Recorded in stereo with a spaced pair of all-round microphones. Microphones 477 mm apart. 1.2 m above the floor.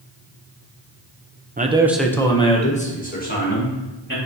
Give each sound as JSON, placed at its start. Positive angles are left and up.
{"t": 1.6, "sound": "a man speaking", "side_deg": -20, "distance_m": 0.6}